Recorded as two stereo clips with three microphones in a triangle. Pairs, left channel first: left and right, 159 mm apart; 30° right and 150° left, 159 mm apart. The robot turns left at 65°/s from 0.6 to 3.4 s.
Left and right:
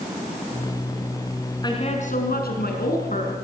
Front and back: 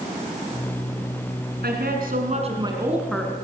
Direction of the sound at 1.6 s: 155° left.